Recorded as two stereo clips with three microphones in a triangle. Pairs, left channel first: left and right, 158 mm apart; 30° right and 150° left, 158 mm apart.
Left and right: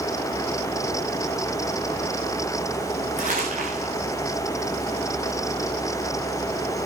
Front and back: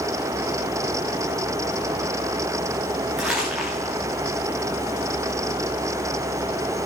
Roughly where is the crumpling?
Behind right.